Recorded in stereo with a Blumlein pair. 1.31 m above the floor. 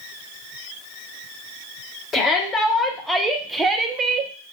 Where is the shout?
25° left, 1.2 m; by 4.3 s 35° right, 0.8 m.